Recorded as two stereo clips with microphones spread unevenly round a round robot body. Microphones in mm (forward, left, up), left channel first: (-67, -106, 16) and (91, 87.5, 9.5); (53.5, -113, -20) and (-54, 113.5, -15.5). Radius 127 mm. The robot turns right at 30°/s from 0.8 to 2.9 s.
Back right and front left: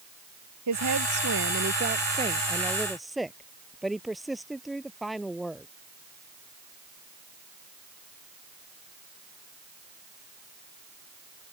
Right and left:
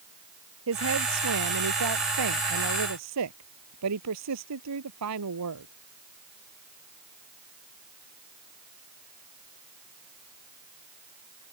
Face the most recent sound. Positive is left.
turn(degrees=140)